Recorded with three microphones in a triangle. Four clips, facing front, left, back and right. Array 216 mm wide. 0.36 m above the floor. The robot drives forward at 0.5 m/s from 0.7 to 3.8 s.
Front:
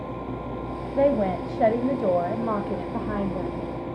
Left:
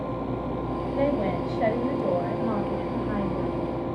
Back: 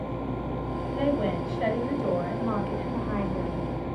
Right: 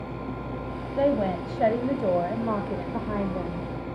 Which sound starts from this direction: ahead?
A woman speaking, at 1.0 s.